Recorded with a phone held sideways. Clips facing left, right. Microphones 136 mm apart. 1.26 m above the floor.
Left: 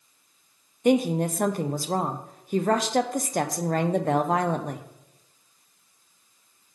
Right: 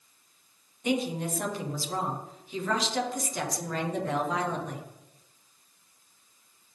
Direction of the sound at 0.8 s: 50° left (ahead or behind).